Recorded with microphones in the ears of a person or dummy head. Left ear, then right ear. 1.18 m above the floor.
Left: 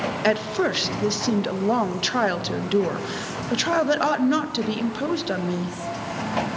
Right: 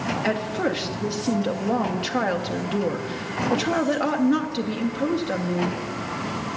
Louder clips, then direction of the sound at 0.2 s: Left 4 dB; 25° left (ahead or behind).